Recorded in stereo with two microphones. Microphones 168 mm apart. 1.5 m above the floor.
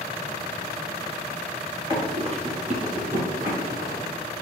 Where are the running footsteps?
30° right (ahead or behind), 1.8 m; by 4.0 s 60° right (ahead or behind), 3 m.